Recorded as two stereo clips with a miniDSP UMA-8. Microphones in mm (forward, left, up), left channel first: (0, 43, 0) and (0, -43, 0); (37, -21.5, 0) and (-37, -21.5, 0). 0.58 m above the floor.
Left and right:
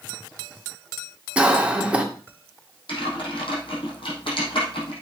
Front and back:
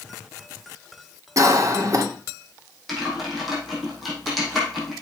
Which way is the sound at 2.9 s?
90° left.